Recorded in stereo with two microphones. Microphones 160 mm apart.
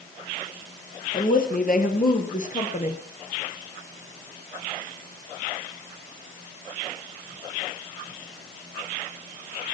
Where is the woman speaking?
60° left (ahead or behind), 3 m; by 3.0 s 45° left (ahead or behind), 2 m.